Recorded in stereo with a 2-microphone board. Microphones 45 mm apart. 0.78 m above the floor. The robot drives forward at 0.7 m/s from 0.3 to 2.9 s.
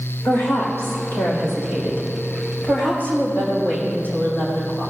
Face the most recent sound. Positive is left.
turn(degrees=45)  # may be behind; listen again after turning